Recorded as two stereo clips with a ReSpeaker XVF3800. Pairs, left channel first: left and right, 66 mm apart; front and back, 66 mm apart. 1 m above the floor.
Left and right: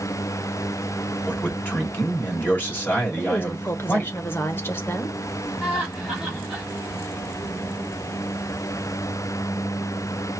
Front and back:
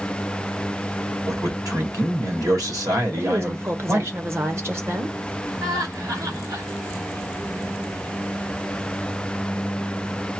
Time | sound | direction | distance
1.3 | a man speaking | 155° left | 2 m
3.2 | a woman speaking | 140° left | 1.0 m
5.6 | laughter | straight behind | 1.7 m